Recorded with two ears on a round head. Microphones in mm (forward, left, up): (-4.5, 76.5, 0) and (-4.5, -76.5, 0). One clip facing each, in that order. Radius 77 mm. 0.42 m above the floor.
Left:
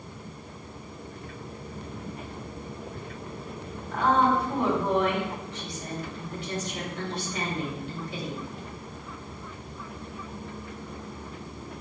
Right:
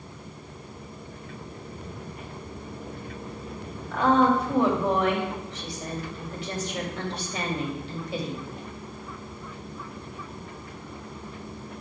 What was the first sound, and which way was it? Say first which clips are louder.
A woman speaking: right 3 dB; 55° right (ahead or behind).